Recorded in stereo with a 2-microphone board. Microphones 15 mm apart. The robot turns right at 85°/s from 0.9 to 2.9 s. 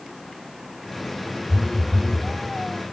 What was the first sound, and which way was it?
A phone buzzing, 25° left.